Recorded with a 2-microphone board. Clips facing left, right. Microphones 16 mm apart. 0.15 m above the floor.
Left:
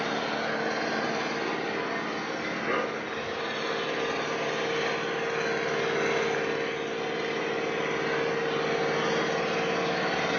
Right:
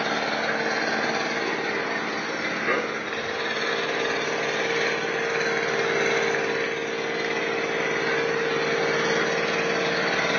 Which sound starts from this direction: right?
An engine running, at 0.0 s.